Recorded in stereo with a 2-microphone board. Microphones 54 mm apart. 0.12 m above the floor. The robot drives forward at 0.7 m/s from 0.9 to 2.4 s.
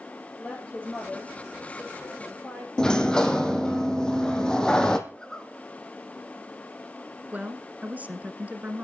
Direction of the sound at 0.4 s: 20° left (ahead or behind).